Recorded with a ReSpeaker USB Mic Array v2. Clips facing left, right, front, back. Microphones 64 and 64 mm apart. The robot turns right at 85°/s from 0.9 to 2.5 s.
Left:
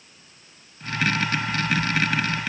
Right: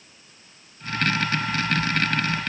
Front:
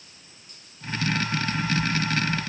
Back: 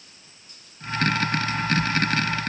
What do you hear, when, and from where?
Only background noise.